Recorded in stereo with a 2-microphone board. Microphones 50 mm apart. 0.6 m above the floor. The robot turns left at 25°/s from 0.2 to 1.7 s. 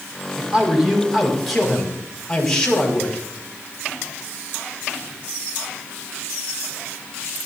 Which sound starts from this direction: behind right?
A man speaking, at 0.4 s.